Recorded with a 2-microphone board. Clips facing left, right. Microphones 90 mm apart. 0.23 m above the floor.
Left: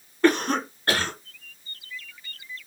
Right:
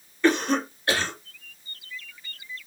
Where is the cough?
50° left (ahead or behind), 2 m.